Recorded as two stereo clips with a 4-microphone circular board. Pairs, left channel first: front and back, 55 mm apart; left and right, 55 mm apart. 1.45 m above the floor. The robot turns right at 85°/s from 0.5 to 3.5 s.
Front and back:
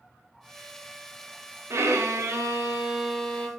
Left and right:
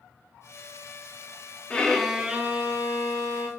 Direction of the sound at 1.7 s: 155° left.